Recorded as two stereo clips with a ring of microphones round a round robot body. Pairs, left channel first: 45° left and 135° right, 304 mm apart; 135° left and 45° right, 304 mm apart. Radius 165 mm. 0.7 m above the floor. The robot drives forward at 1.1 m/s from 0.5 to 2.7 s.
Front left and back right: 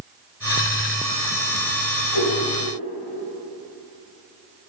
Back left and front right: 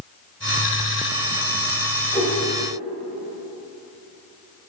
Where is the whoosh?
60° left, 5 m; by 2.4 s 65° left, 5 m.